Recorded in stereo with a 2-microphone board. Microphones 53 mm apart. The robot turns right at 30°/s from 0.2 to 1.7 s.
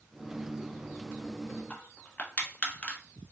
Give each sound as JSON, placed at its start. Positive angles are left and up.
{"t": 1.7, "sound": "crushing", "side_deg": 25, "distance_m": 0.8}